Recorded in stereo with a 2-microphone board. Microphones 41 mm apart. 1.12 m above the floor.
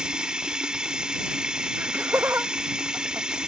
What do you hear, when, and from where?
0.0 s running water: 20° right (ahead or behind)
1.8 s laughter: 70° right (ahead or behind)